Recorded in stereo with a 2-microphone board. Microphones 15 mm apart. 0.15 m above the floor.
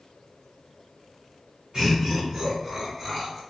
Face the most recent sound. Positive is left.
turn(degrees=-20)  # may be behind; listen again after turning